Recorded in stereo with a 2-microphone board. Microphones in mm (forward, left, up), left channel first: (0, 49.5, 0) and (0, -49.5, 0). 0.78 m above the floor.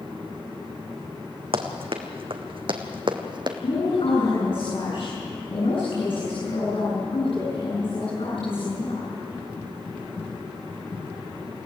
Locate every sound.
1.5 s running footsteps: 70° right (ahead or behind), 2.5 m; by 3.6 s 50° right (ahead or behind), 1.9 m
3.6 s a woman speaking: 65° left (ahead or behind), 10 m